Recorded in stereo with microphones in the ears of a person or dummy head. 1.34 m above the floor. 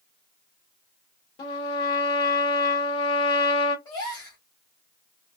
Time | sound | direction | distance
1.4 | a trumpet | 25° left (ahead or behind) | 0.7 m
3.9 | a gasp | 25° left (ahead or behind) | 1.1 m